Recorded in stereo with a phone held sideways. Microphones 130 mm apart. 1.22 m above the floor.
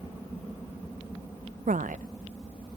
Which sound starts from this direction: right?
A woman speaking, at 1.7 s.